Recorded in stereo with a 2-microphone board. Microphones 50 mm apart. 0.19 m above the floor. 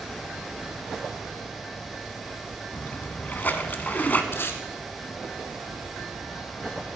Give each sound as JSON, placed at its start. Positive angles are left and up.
{"t": 2.7, "sound": "a splash", "side_deg": 40, "distance_m": 1.0}
{"t": 4.3, "sound": "tape being pulled", "side_deg": 50, "distance_m": 1.2}